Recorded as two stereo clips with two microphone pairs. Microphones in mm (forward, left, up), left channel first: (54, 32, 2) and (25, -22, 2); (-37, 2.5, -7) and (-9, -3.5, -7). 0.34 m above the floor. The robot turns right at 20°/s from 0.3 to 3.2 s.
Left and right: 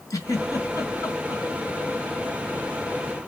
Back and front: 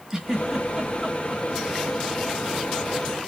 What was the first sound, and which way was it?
A giggle, 55° left.